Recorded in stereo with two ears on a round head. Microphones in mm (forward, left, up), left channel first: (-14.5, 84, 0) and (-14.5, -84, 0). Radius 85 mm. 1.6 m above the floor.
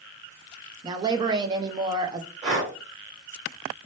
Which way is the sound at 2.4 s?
40° right (ahead or behind).